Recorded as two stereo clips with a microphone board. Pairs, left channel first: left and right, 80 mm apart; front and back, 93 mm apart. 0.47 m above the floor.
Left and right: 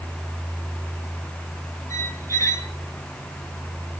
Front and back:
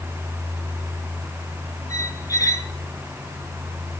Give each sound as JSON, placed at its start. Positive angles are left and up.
{"t": 1.9, "sound": "a squeak", "azimuth_deg": 45, "distance_m": 0.8}